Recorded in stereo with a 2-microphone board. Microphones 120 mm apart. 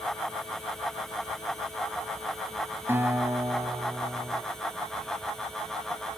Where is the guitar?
20° right (ahead or behind), 3 m.